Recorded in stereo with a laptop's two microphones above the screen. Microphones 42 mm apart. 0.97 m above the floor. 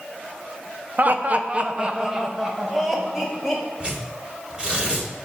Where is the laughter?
40° right (ahead or behind), 0.6 m; by 3.6 s centre (ahead or behind), 1.8 m.